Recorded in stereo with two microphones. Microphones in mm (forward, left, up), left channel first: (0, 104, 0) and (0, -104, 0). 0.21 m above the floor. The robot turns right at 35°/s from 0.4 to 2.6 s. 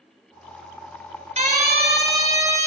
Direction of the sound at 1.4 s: 35° right (ahead or behind).